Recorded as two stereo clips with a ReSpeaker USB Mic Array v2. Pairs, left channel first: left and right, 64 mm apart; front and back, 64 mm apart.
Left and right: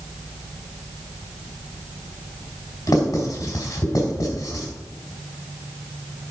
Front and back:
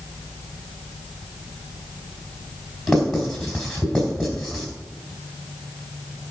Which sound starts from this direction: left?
Writing, at 2.9 s.